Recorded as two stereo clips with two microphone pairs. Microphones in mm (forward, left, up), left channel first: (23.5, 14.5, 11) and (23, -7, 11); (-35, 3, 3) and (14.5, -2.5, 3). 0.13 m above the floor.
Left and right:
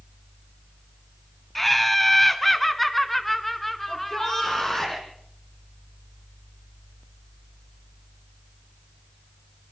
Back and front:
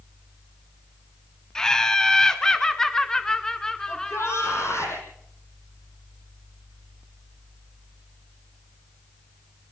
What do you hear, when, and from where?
1.6 s laughter: 135° left, 1.0 m
3.9 s a shout: 155° left, 6.5 m